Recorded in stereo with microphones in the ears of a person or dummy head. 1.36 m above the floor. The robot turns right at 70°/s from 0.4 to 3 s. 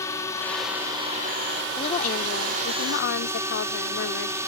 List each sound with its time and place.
0.0 s a drone: 160° left; by 4.5 s 15° right
1.8 s a woman speaking: 25° left; by 4.5 s 110° left